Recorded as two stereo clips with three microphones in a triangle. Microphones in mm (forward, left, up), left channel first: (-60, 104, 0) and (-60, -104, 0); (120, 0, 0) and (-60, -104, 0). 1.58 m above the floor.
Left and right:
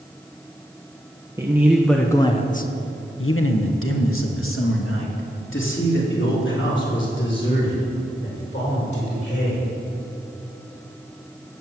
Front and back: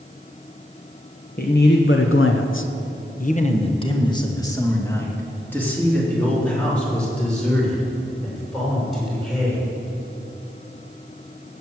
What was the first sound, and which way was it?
A man speaking, 15° right.